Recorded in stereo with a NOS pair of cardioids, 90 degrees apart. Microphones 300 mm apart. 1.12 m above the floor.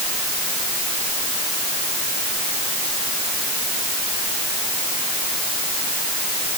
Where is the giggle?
No giggle in this recording.